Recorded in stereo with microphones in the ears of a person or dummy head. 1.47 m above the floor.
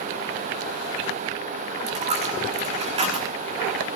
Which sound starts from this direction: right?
A dropped coin, at 1.9 s.